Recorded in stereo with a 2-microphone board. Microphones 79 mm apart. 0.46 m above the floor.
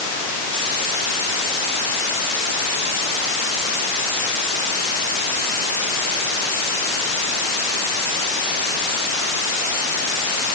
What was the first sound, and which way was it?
Only background noise.